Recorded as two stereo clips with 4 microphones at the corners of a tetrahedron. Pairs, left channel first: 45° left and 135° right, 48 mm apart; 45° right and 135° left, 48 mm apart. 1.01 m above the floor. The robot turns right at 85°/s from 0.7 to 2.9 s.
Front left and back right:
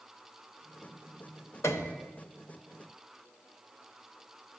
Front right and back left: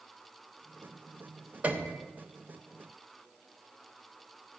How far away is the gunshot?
I don't hear a gunshot.